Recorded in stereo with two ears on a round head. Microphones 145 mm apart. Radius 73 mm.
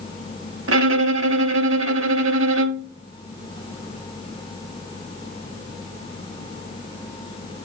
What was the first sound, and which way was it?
A violin, 80° right.